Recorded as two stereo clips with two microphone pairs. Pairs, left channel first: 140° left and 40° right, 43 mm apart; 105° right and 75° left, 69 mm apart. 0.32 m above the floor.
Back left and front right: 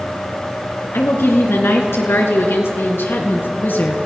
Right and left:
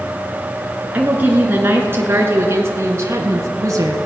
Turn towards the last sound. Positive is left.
turn(degrees=110)